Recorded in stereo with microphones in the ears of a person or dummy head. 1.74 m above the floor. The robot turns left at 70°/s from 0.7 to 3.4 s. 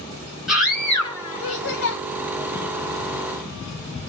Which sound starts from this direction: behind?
A scream, at 0.5 s.